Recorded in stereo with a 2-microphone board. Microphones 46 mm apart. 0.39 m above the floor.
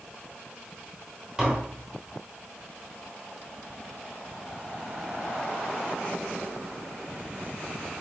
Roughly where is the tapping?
Centre.